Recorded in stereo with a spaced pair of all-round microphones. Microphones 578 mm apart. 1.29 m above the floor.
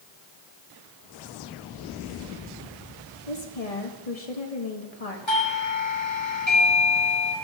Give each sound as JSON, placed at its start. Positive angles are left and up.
{"t": 3.3, "sound": "a woman speaking", "side_deg": 80, "distance_m": 1.9}
{"t": 5.3, "sound": "a doorbell", "side_deg": 50, "distance_m": 2.5}